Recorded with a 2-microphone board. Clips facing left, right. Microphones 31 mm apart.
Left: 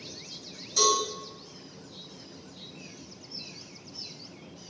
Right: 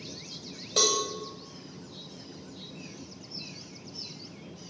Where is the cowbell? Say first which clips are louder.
Left 2 dB; 55° right (ahead or behind), 1.8 m.